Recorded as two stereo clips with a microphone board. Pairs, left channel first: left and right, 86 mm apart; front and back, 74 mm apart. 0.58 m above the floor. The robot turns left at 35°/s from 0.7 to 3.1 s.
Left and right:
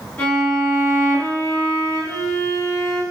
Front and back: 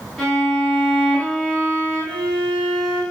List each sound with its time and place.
0.2 s a violin: 85° left, 1.3 m; by 3.0 s 5° left, 1.3 m